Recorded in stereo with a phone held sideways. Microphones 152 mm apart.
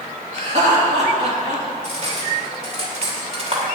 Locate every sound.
0.3 s laughter: 50° right (ahead or behind), 3 m
1.8 s cutlery clinking: 45° right (ahead or behind), 2.5 m